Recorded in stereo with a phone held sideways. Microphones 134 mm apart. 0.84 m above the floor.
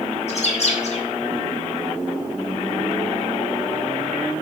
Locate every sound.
0.3 s a bird: 55° left (ahead or behind), 1.5 m